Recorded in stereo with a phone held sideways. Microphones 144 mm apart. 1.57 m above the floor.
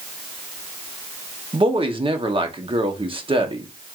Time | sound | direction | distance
1.5 | a woman speaking | 40° right (ahead or behind) | 0.8 m